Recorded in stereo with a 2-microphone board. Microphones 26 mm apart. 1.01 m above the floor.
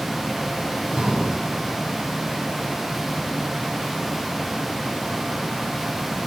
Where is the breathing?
30° right (ahead or behind), 3.5 m.